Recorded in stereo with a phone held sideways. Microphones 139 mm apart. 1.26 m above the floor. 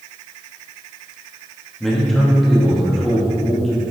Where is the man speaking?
Centre (ahead or behind), 2 m.